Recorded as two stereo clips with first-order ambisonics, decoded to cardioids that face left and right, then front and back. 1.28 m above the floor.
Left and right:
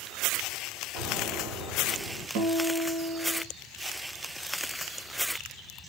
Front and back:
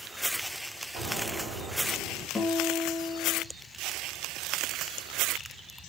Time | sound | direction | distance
0.9 | an explosion | 150° right | 3.5 m
2.4 | a guitar | 80° right | 1.3 m